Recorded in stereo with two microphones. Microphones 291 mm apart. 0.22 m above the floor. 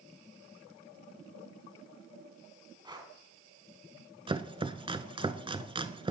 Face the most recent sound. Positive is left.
turn(degrees=-20)  # may be behind; listen again after turning